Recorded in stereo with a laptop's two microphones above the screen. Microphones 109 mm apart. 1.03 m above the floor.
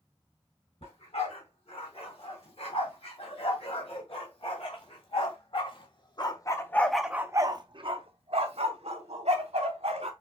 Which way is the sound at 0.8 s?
70° left (ahead or behind).